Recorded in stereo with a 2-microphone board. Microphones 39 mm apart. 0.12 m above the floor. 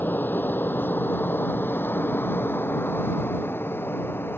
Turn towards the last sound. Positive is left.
turn(degrees=70)  # may be behind; listen again after turning